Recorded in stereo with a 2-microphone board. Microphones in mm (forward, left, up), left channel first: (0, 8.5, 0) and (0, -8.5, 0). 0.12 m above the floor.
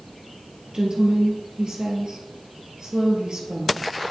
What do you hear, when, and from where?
0.7 s a woman speaking: 55° right (ahead or behind), 2 m